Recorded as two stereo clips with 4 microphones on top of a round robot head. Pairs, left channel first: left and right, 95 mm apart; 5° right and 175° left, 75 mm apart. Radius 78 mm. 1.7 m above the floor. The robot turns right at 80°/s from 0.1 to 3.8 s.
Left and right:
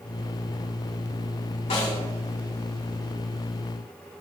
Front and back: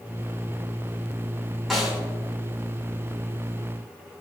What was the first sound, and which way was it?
A snare drum, 85° left.